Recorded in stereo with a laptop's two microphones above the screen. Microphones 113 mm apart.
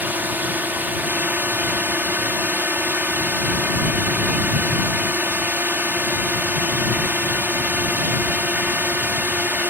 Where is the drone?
15° right (ahead or behind).